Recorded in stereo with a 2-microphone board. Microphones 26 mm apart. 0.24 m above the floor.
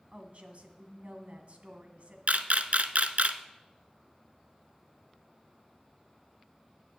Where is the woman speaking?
55° right (ahead or behind), 1.5 m.